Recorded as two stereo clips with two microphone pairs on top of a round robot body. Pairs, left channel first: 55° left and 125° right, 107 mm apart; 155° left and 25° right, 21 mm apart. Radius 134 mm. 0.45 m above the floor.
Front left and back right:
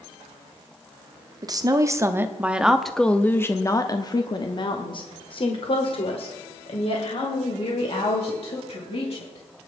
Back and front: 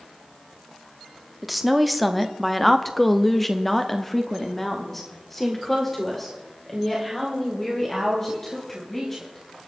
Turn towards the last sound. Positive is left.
turn(degrees=75)